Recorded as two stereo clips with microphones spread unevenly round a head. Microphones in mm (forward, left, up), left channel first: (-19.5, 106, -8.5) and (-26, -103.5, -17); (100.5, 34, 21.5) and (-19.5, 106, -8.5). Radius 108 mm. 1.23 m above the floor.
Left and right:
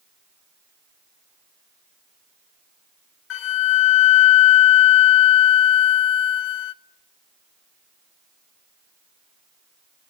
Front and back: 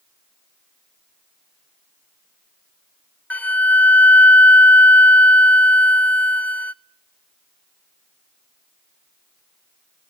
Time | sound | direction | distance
3.3 | a flute | 50° left | 0.5 m